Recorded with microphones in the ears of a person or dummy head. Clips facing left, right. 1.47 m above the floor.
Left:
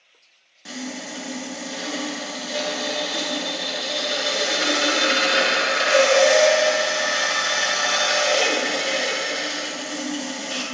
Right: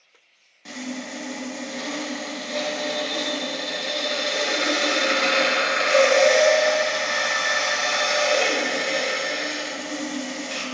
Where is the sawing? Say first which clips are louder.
Even; 10° left (ahead or behind), 1.0 m.